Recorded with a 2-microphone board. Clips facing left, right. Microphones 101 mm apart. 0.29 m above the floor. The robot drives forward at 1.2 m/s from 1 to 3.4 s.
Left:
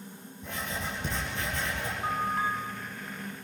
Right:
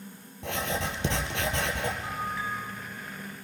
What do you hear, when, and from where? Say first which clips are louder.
0.4 s writing: right 5 dB; 80° right, 3 m; by 1.9 s 70° right (ahead or behind), 3 m
2.0 s a bell: left 4 dB; 55° left (ahead or behind), 2.5 m